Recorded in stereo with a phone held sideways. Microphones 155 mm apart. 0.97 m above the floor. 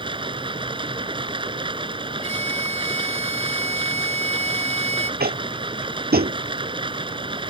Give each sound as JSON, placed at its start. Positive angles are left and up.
{"t": 0.0, "sound": "running water", "side_deg": -35}
{"t": 2.2, "sound": "a violin", "side_deg": -45}
{"t": 5.2, "sound": "tapping", "side_deg": -85}